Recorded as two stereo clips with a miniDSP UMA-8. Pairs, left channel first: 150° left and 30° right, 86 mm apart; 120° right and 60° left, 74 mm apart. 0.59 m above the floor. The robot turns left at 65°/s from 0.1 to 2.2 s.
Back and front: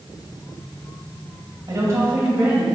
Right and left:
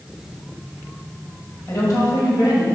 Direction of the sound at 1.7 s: 70° right.